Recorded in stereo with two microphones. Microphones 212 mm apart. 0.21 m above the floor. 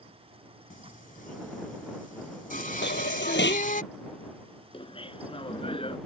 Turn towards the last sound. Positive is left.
turn(degrees=25)  # may be behind; listen again after turning